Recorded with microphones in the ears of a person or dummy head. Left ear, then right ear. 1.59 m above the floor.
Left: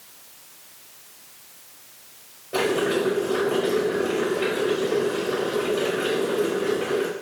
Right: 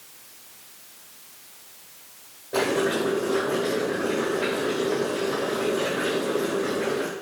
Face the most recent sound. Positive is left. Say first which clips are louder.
# left 1 dB
turn(degrees=5)  # may be behind; listen again after turning